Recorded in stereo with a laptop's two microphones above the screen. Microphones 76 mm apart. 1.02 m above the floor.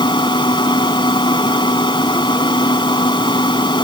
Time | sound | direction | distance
0.0 | a fan | 90° left | ?